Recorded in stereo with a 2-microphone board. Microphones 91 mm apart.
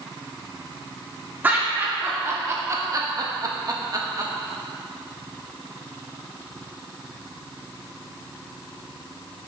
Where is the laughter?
20° right (ahead or behind), 2.5 m; by 4.3 s 35° right (ahead or behind), 1.3 m.